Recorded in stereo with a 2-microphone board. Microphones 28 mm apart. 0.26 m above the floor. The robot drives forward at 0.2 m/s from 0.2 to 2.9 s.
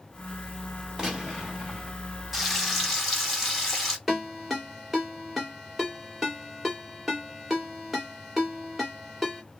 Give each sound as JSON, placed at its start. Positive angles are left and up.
{"t": 1.0, "sound": "a gunshot", "side_deg": -20, "distance_m": 1.7}
{"t": 2.3, "sound": "frying", "side_deg": 0, "distance_m": 1.0}
{"t": 4.1, "sound": "a ringtone", "side_deg": -10, "distance_m": 1.6}